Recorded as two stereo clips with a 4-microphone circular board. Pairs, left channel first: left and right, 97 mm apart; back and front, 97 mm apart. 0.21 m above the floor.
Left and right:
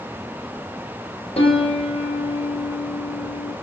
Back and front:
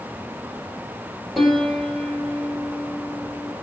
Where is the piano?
90° left, 2 m.